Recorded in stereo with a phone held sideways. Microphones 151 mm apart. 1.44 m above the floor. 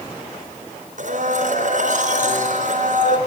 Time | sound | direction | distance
1.0 | a blender | 65° right (ahead or behind) | 3.5 m